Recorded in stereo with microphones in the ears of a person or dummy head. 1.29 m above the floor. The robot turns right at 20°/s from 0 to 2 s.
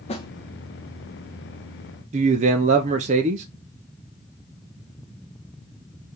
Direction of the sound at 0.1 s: 25° left (ahead or behind).